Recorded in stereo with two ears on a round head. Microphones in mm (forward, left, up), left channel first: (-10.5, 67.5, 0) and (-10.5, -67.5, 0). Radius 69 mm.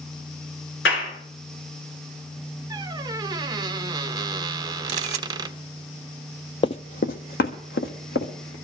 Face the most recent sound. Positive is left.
turn(degrees=75)  # may be behind; listen again after turning